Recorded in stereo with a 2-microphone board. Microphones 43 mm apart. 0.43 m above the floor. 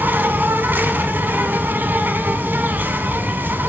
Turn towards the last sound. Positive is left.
turn(degrees=-50)  # may be behind; listen again after turning